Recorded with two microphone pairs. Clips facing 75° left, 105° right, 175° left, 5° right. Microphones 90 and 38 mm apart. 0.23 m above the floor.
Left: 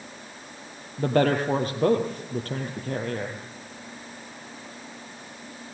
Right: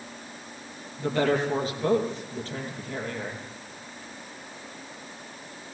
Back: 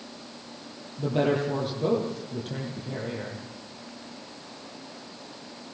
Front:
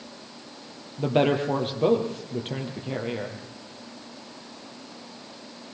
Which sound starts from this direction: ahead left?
A woman speaking, at 1.0 s.